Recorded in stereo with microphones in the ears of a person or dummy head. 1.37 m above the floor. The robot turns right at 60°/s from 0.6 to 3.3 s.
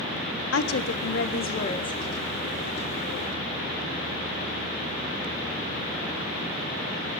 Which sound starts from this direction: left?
A woman speaking, at 0.5 s.